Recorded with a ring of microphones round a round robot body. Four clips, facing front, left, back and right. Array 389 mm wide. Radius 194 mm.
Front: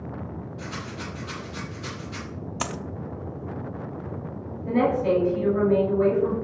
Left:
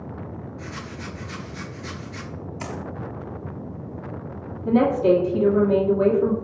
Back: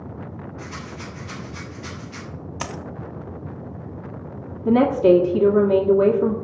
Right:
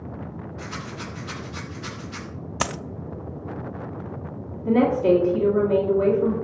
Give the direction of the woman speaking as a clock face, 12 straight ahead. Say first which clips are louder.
Left 1 dB, back 7 dB; 6 o'clock.